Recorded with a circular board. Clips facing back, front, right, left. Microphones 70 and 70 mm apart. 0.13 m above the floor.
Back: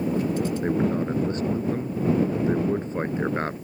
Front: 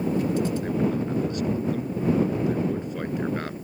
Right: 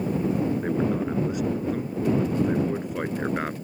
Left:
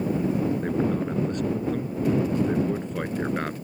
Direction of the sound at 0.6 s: 165° right.